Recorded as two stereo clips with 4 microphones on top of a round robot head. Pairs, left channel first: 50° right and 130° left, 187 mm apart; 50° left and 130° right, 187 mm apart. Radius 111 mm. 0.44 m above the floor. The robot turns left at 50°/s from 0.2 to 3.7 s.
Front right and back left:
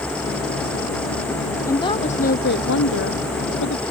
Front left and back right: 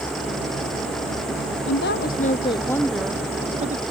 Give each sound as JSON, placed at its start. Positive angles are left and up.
{"t": 1.7, "sound": "a woman speaking", "azimuth_deg": 25}